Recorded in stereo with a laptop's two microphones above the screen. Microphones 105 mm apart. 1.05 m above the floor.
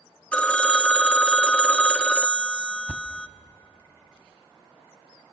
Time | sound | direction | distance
0.3 | a phone ringing | 10° left (ahead or behind) | 0.7 m
2.9 | a thud | 15° right (ahead or behind) | 0.9 m